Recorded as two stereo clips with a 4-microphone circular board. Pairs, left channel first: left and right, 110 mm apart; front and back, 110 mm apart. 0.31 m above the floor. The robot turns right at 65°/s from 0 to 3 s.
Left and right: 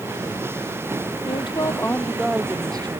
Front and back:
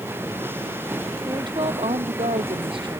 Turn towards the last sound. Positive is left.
turn(degrees=-125)